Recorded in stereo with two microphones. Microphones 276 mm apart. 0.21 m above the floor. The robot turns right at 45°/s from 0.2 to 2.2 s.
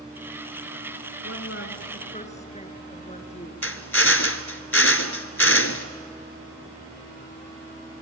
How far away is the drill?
About 1.4 m.